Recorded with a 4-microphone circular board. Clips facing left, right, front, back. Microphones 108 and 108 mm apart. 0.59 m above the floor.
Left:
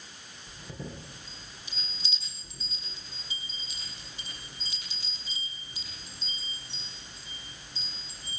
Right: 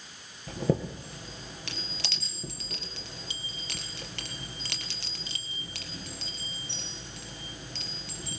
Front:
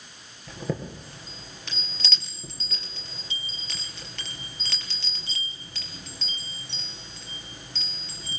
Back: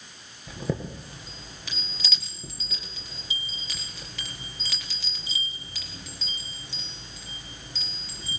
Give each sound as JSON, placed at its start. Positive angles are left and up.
{"t": 0.5, "sound": "a chime", "azimuth_deg": -95, "distance_m": 4.0}